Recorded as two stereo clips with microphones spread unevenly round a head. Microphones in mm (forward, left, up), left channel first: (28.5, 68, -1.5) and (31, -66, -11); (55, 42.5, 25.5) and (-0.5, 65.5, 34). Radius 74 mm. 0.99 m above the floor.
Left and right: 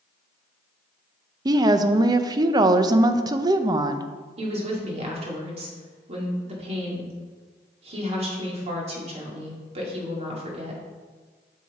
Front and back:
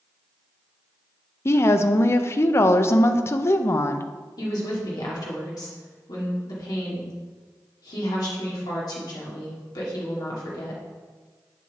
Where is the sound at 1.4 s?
40° right, 0.5 m.